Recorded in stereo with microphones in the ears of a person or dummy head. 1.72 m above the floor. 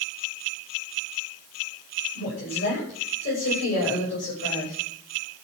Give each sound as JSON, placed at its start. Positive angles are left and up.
{"t": 2.1, "sound": "a woman speaking", "side_deg": 60, "distance_m": 7.5}